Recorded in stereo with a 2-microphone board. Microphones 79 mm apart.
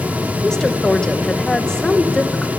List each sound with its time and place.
0.4 s a woman speaking: 10° left (ahead or behind), 2 m